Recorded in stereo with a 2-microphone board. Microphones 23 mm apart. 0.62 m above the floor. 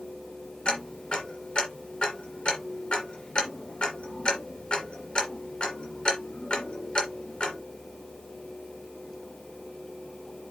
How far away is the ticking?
About 3 m.